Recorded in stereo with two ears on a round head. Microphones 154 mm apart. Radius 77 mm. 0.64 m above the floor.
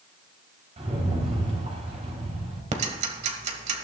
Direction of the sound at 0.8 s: 40° right (ahead or behind).